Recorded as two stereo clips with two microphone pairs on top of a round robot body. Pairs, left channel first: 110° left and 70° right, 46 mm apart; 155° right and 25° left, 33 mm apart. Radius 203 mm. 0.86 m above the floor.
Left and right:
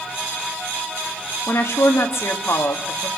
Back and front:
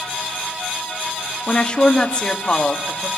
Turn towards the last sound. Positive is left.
turn(degrees=135)